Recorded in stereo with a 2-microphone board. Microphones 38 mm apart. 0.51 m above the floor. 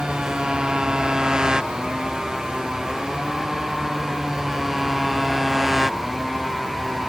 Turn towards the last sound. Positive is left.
turn(degrees=-5)  # may be behind; listen again after turning